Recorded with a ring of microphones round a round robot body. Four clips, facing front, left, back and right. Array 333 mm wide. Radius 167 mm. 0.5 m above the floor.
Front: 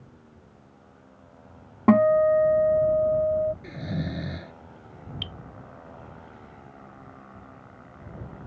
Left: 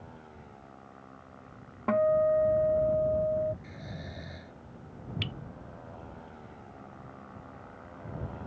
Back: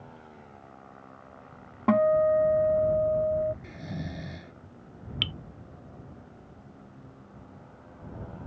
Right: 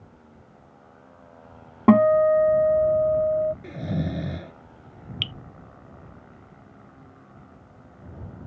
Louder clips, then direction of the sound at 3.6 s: Right 14 dB, front 6 dB; 70° right.